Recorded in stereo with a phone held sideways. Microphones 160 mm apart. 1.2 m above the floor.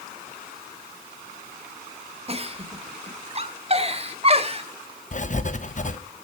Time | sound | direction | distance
2.3 | a giggle | 40° right (ahead or behind) | 1.5 m
5.1 | writing | 50° left (ahead or behind) | 1.1 m